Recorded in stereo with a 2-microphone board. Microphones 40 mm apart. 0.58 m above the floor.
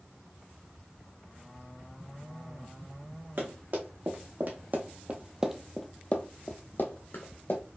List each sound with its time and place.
3.4 s running footsteps: 65° right (ahead or behind), 1.7 m; by 7.6 s 70° left (ahead or behind), 1.4 m